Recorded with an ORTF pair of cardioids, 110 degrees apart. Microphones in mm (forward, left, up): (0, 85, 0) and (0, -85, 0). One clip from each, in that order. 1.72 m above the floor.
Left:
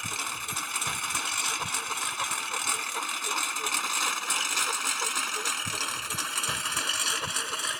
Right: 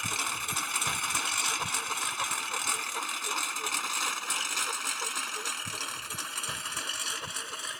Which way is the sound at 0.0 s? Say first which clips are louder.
Right 1 dB; 10° right.